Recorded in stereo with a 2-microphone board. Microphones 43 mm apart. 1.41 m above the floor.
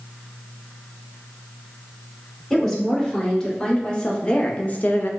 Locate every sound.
2.5 s a woman speaking: 15° left (ahead or behind), 1.9 m; by 5.1 s 55° left (ahead or behind), 0.5 m